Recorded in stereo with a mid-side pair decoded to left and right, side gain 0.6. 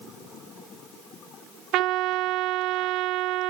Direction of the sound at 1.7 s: 70° right.